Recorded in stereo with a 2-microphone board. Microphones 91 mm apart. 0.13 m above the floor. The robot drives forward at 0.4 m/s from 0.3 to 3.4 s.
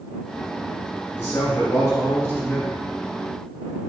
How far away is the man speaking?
About 1.7 m.